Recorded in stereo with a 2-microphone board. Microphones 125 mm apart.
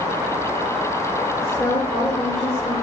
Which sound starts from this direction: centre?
A woman speaking, at 1.4 s.